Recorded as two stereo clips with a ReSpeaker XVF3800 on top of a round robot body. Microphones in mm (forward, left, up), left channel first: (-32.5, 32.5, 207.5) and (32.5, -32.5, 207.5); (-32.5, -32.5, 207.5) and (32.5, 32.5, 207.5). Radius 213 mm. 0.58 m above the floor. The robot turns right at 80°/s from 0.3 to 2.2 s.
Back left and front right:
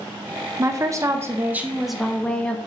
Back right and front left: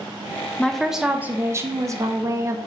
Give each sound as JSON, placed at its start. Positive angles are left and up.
{"t": 0.6, "sound": "a woman speaking", "azimuth_deg": -65, "distance_m": 0.6}